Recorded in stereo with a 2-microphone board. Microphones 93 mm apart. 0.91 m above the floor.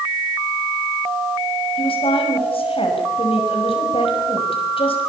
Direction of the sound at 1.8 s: 75° left (ahead or behind).